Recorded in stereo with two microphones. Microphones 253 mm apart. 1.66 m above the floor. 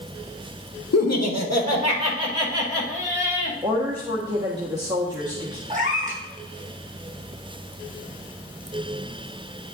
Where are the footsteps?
I don't hear footsteps.